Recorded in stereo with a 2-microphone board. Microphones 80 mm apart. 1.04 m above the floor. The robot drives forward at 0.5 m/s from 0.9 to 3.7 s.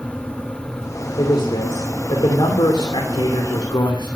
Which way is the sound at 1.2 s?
65° left (ahead or behind).